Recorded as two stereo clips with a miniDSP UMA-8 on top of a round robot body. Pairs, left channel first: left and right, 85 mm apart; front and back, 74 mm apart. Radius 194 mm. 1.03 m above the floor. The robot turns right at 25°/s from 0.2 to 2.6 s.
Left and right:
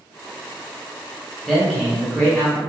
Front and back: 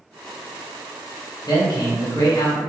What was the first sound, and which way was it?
A man speaking, straight ahead.